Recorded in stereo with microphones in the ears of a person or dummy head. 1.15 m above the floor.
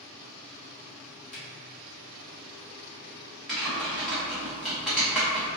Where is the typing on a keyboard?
Centre (ahead or behind), 0.6 m.